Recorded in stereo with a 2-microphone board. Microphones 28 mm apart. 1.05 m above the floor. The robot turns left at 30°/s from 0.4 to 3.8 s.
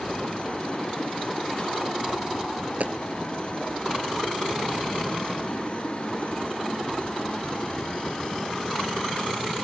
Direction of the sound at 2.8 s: 65° right (ahead or behind).